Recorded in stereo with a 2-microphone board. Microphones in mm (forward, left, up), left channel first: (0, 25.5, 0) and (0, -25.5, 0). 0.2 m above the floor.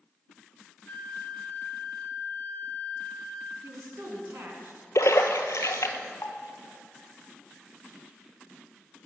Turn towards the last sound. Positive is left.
turn(degrees=80)